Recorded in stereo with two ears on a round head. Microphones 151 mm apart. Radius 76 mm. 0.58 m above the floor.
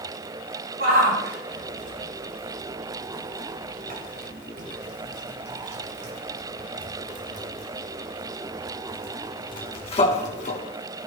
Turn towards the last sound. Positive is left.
turn(degrees=50)  # may be behind; listen again after turning